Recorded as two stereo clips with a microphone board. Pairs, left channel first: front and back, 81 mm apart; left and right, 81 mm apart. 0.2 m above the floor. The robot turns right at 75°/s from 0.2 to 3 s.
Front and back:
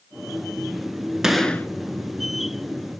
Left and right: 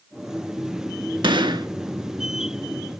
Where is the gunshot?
95° right, 0.7 m; by 1.7 s 65° right, 0.7 m.